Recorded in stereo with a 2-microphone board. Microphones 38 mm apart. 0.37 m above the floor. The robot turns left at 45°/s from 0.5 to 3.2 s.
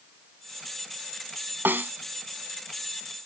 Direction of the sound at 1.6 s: 70° right (ahead or behind).